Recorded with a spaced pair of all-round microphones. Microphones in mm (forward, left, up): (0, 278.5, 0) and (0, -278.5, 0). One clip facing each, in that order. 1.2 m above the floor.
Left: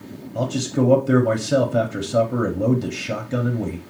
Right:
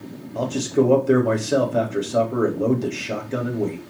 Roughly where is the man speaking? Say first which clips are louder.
Right 2 dB; left.